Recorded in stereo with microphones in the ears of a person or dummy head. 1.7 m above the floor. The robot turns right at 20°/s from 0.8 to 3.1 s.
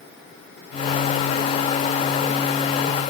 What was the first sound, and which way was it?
Only background noise.